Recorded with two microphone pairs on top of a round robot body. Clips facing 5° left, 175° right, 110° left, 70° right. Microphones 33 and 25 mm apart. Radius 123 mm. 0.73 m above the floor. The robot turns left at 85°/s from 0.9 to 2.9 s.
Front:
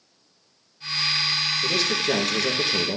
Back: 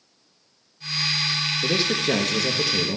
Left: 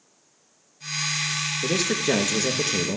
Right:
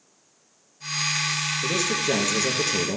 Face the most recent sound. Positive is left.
turn(degrees=15)